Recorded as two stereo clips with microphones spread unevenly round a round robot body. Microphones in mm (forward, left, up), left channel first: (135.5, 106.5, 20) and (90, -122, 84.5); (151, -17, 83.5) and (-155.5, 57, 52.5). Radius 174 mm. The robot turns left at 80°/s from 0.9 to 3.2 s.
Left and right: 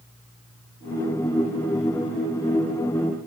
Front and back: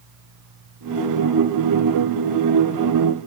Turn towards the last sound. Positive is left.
No sound to turn to.